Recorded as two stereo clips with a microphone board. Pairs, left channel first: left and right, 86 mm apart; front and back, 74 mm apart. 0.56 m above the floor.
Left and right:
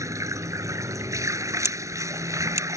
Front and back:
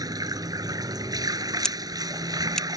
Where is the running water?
145° right.